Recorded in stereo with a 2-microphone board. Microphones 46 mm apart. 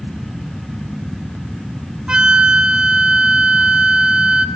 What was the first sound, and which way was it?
A flute, 20° right (ahead or behind).